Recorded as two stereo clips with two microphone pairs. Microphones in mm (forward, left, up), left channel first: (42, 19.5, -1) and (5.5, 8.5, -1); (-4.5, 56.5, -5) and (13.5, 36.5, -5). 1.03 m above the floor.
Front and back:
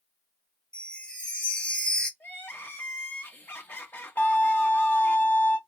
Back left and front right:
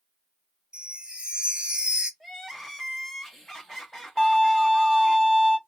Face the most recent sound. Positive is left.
turn(degrees=60)